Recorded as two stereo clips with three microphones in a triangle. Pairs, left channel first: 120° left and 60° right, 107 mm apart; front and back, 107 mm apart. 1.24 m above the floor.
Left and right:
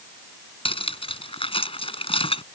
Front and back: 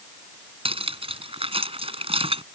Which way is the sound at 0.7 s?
150° left.